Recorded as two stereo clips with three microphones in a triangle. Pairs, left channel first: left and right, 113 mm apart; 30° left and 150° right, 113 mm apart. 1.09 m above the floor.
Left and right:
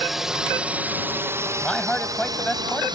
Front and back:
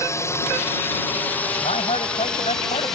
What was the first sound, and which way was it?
A drone, 5° right.